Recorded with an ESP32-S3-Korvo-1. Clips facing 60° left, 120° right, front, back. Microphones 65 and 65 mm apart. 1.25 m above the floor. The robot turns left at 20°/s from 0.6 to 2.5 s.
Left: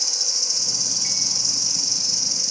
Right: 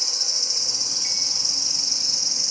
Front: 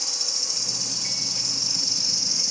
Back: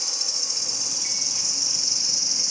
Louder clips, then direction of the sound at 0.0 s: Even, even; 90° right.